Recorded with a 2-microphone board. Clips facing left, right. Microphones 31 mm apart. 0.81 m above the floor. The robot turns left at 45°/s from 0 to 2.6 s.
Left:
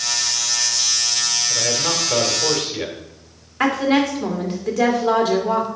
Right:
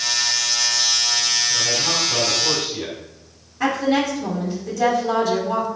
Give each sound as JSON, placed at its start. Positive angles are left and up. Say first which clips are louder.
{"t": 1.5, "sound": "a man speaking", "louder": "even", "azimuth_deg": 120, "distance_m": 2.5}
{"t": 3.6, "sound": "a woman speaking", "louder": "left 2 dB", "side_deg": 75, "distance_m": 2.5}